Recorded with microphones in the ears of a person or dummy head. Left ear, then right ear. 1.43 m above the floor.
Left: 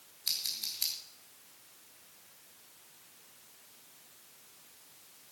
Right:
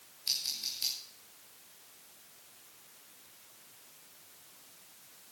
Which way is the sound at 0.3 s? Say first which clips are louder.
Right 1 dB; 30° left (ahead or behind).